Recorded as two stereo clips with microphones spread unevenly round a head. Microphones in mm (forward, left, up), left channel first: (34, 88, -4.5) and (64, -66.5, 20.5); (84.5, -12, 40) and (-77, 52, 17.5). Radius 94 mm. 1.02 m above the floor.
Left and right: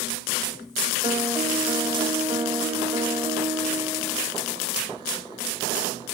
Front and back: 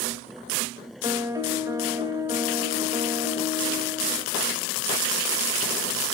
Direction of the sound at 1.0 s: 130° right.